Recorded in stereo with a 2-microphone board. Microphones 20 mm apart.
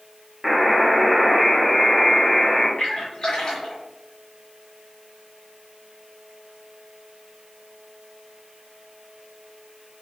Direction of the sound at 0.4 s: Centre (ahead or behind).